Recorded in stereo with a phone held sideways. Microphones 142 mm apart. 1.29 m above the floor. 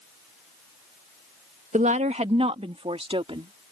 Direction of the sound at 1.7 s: 60° right (ahead or behind).